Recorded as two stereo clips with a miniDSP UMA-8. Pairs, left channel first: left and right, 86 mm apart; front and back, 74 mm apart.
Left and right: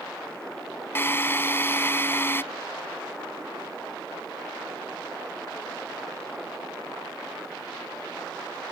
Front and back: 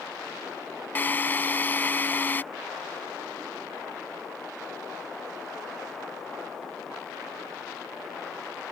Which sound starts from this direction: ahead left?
A drill, at 0.9 s.